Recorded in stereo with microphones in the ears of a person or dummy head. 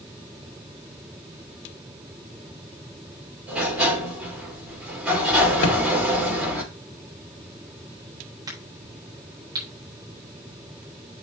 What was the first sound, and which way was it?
A sliding door, 5° right (ahead or behind).